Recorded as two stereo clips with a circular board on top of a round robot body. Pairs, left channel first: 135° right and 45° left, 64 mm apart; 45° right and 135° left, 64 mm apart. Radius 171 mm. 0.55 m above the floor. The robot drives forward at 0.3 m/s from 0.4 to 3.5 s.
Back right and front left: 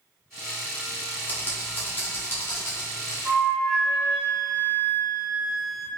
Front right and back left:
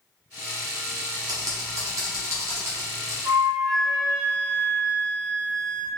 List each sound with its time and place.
1.3 s typing on a keyboard: 160° left, 0.5 m; by 3.1 s 170° left, 1.1 m
3.2 s a flute: 120° left, 1.3 m